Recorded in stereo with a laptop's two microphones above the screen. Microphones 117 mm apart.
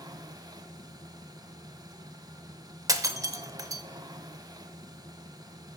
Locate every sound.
0.0 s a machine running: 35° right (ahead or behind), 1.1 m
2.9 s breaking glass: 30° right (ahead or behind), 0.8 m